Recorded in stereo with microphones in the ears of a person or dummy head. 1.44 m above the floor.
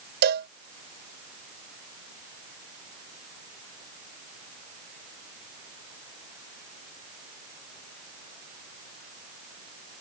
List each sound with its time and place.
0.2 s a cowbell: 50° right (ahead or behind)